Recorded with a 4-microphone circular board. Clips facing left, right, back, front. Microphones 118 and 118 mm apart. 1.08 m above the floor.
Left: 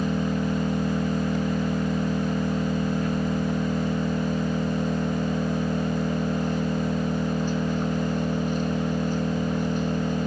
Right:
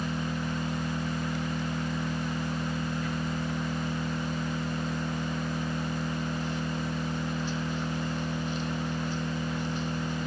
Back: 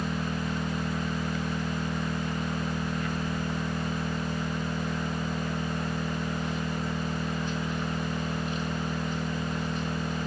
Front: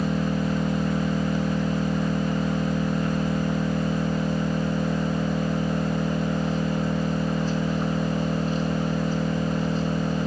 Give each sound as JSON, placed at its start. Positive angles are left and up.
{"t": 0.0, "sound": "an engine running", "azimuth_deg": 55, "distance_m": 1.7}